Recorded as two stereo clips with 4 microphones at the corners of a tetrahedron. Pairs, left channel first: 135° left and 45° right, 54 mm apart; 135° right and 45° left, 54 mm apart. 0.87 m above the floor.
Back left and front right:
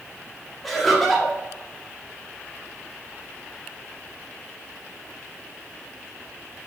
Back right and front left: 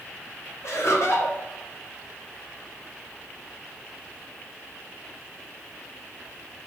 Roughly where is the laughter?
Behind right.